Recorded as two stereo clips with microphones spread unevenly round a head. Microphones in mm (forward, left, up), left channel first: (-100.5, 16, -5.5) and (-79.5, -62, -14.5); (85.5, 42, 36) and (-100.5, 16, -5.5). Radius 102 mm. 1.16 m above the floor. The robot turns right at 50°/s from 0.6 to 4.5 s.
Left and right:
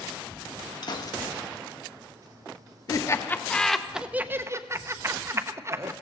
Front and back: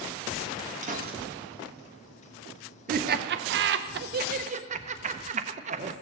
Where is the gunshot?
140° left, 2.0 m; by 1.2 s 160° left, 2.0 m.